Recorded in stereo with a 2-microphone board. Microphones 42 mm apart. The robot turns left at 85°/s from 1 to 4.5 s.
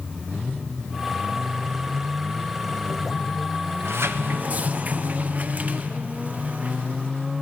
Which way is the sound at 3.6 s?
65° right.